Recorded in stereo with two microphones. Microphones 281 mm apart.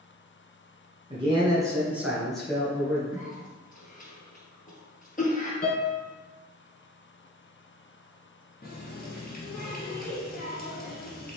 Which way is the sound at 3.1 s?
30° left (ahead or behind).